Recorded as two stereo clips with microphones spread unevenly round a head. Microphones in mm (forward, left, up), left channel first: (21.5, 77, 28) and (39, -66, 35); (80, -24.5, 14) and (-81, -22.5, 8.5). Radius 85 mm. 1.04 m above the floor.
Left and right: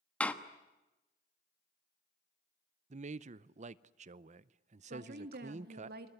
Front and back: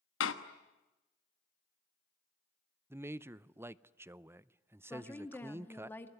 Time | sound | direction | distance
0.2 | a door slam | 15° left | 1.2 m
2.9 | a man speaking | 110° right | 0.6 m
4.9 | a woman speaking | 80° right | 2 m